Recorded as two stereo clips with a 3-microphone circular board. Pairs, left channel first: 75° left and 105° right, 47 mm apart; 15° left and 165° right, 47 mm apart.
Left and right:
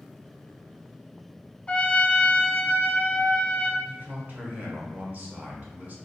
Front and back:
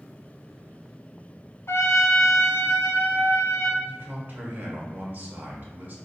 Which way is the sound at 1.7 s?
10° left.